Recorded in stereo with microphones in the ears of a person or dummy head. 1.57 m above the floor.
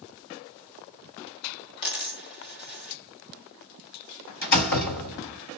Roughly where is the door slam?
Left.